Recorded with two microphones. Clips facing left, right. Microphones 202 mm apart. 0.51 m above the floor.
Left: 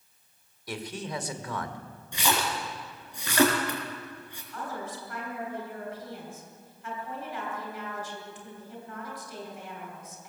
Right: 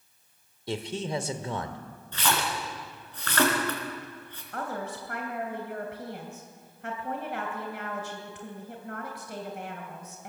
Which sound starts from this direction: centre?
A splash, at 2.1 s.